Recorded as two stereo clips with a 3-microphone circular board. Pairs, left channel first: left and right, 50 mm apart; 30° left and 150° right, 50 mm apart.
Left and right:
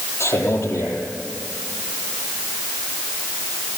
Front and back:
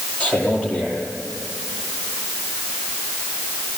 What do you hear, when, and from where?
0.2 s a man speaking: 90° left, 9.5 m